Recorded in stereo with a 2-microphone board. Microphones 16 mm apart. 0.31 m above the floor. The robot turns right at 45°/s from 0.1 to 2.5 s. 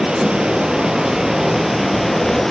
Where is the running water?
100° right, 5.5 m; by 2.5 s 10° left, 5.5 m.